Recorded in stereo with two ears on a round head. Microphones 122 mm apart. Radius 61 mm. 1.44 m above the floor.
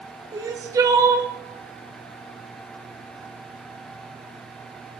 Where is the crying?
25° right (ahead or behind), 0.9 m.